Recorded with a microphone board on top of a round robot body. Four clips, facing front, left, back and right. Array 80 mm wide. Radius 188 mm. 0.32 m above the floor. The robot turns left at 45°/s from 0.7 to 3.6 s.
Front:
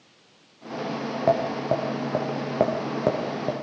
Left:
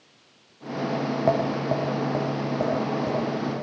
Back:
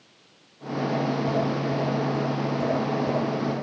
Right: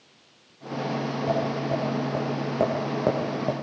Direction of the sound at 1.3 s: 50° left.